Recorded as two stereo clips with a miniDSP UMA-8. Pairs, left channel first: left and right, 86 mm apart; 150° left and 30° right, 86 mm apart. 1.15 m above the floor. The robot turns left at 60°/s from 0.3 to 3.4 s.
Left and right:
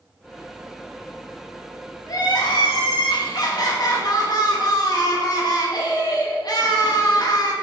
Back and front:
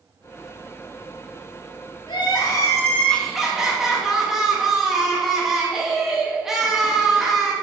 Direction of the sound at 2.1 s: 135° left.